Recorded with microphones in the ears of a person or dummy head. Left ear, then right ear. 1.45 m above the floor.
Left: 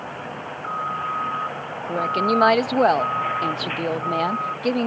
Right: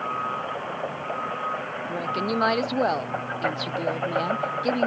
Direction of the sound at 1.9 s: 20° left (ahead or behind).